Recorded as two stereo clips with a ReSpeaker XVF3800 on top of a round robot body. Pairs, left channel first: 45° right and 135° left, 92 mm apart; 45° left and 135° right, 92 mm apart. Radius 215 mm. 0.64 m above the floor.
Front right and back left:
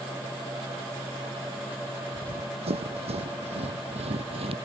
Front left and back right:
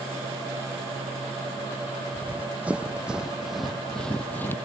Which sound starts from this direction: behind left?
Running footsteps, at 2.1 s.